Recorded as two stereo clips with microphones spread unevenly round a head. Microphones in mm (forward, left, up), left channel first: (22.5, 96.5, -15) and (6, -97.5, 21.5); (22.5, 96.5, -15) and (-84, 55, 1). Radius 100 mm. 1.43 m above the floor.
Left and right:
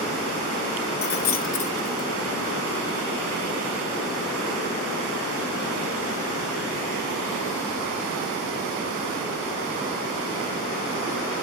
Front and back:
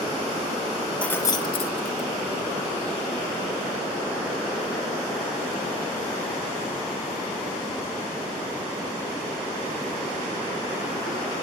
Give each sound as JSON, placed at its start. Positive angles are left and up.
{"t": 1.0, "sound": "keys jangling", "azimuth_deg": 110, "distance_m": 0.5}